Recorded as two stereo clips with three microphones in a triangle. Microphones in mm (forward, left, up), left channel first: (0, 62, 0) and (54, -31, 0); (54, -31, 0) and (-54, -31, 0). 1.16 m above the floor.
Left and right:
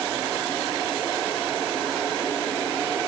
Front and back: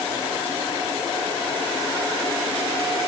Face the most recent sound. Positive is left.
No sound to turn to.